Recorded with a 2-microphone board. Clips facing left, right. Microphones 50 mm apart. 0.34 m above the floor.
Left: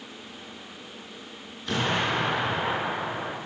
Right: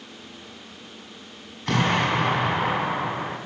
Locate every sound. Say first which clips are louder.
1.7 s an explosion: right 4 dB; 60° right (ahead or behind), 2 m